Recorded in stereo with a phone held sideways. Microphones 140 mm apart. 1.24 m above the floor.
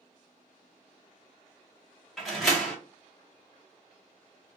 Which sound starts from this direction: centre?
A door slam, at 2.2 s.